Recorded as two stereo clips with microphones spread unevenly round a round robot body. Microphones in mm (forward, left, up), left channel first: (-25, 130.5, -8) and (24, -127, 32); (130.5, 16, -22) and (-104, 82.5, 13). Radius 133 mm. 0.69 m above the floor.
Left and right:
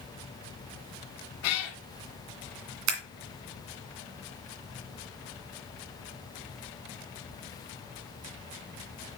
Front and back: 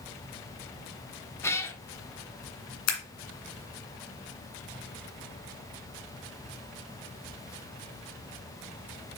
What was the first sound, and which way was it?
A cat meowing, 70° left.